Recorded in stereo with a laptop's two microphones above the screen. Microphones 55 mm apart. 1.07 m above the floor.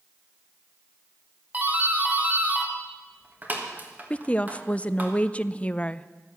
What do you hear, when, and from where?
1.5 s a doorbell: 30° right (ahead or behind), 1.5 m
4.1 s a woman speaking: 20° left (ahead or behind), 0.5 m